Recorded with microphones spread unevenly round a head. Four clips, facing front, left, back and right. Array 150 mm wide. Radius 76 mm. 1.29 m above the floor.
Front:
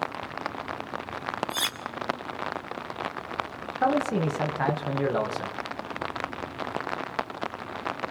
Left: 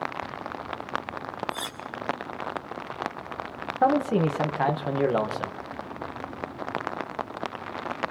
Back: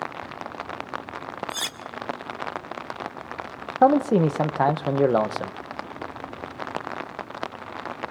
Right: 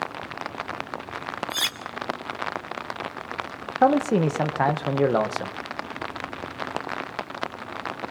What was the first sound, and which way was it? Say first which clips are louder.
Cutlery clinking: right 3 dB, front 1 dB; 85° right.